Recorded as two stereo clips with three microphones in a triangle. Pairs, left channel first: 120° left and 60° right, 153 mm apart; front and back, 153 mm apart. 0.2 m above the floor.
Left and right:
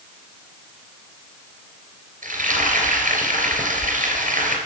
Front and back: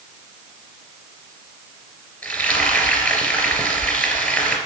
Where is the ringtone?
I don't hear a ringtone.